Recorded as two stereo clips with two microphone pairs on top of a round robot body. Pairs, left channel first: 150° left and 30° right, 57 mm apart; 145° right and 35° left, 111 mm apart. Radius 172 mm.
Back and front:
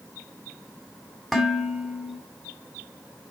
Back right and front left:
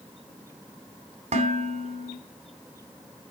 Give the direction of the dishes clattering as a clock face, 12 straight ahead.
10 o'clock.